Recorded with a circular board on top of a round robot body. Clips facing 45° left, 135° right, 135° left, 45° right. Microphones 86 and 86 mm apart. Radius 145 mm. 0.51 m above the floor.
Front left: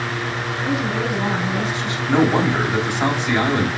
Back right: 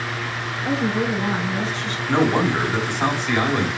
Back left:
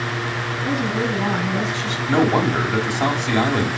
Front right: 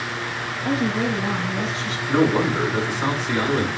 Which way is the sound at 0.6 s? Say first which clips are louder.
Back right 1 dB, front right 1 dB; 120° left.